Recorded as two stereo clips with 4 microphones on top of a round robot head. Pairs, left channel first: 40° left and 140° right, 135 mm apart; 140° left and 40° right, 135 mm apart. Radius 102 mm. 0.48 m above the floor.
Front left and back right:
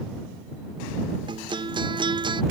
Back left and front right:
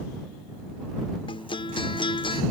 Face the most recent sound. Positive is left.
turn(degrees=180)